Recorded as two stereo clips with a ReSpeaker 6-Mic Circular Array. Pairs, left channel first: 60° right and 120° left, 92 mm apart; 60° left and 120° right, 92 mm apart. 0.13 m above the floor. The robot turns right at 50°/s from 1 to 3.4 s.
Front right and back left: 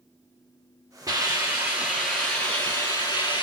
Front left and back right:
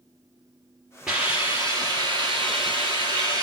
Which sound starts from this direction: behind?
A hiss, at 1.1 s.